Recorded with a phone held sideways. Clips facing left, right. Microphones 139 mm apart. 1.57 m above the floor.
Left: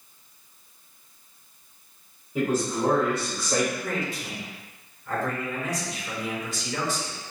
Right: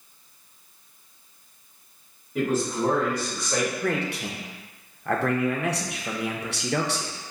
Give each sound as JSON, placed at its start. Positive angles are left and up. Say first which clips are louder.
{"t": 2.4, "sound": "a man speaking", "louder": "even", "side_deg": 10, "distance_m": 1.5}
{"t": 3.8, "sound": "a man speaking", "louder": "right 4 dB", "side_deg": -70, "distance_m": 0.5}